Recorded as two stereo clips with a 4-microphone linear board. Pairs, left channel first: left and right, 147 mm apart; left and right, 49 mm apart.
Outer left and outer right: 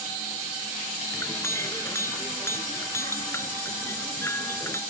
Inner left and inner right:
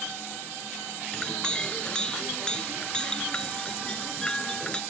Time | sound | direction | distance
1.1 | a clink | 15° left (ahead or behind) | ?